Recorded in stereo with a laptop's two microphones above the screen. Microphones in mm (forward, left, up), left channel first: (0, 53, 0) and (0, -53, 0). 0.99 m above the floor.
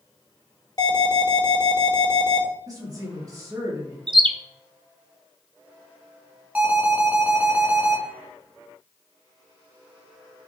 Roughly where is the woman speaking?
Right.